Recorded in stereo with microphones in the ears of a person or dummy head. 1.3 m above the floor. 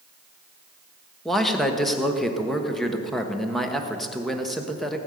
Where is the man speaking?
5° left (ahead or behind), 1.1 m.